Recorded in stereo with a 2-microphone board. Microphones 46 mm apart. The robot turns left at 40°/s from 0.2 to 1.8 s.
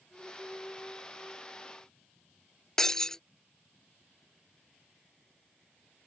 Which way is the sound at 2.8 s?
10° left (ahead or behind).